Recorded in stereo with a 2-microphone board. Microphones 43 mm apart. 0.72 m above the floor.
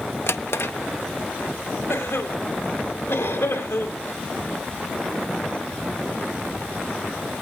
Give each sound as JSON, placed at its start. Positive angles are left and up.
{"t": 0.3, "sound": "a drawer", "side_deg": 65, "distance_m": 0.6}
{"t": 1.9, "sound": "a cough", "side_deg": 75, "distance_m": 3.0}